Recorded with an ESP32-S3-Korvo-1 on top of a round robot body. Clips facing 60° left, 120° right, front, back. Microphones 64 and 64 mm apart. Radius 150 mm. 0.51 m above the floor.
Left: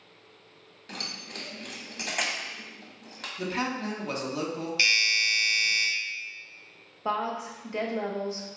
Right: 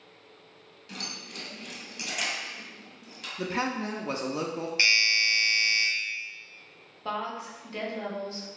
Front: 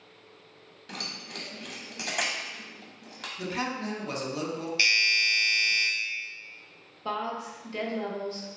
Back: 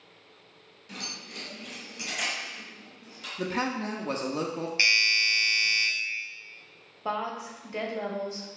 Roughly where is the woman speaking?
Behind left.